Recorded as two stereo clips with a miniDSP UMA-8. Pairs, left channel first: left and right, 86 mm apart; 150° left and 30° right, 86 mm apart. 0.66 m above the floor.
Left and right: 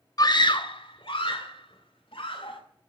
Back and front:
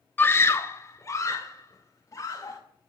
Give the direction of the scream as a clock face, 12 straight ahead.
9 o'clock.